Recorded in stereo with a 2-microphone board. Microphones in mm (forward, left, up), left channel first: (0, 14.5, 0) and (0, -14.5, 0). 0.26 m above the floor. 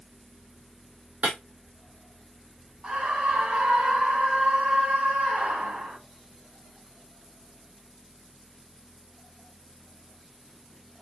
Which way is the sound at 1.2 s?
80° right.